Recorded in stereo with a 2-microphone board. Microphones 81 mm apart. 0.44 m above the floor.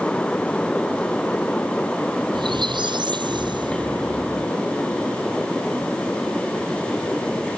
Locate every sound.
2.3 s a squeak: 75° right (ahead or behind)